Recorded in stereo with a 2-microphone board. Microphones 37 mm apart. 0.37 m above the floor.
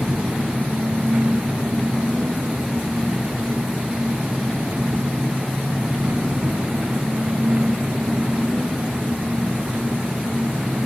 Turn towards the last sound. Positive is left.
turn(degrees=-50)  # may be behind; listen again after turning